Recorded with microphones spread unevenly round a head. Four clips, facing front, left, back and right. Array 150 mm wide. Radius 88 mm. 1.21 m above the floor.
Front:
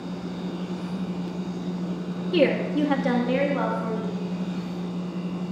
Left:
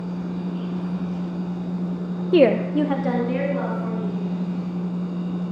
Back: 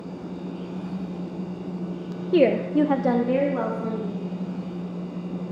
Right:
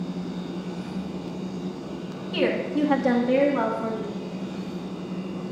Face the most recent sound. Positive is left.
turn(degrees=-145)